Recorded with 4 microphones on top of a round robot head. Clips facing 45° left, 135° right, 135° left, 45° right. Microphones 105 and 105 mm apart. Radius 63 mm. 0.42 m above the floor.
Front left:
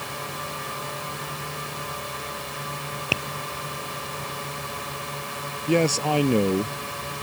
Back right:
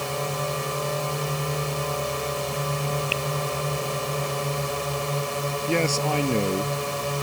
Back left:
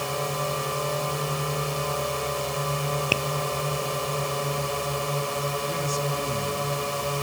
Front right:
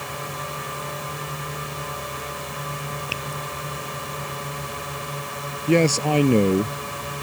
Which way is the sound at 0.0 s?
175° right.